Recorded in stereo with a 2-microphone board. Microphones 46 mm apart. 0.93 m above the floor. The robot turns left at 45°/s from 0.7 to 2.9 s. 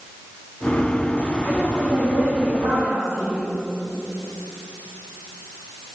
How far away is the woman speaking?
About 3.5 m.